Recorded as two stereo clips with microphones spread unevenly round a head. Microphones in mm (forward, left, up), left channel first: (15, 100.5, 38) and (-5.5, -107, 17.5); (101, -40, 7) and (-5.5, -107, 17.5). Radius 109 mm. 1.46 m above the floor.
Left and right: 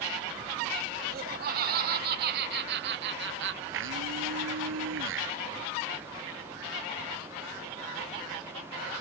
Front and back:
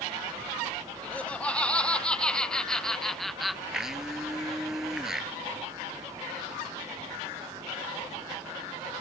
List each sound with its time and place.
1.0 s laughter: 50° right; by 3.6 s 60° right
3.7 s a blender: 65° right